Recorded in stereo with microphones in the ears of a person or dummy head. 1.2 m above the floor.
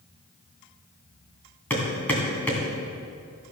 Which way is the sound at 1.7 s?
5° left (ahead or behind).